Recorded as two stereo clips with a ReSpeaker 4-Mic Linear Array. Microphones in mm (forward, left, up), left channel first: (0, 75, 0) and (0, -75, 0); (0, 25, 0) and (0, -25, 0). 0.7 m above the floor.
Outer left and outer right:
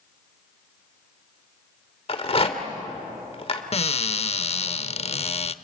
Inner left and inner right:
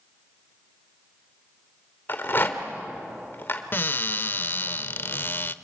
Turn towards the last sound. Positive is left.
turn(degrees=45)  # may be behind; listen again after turning